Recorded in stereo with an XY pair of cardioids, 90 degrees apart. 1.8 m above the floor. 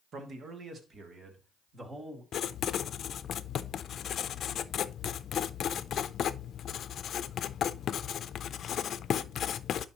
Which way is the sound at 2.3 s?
65° left.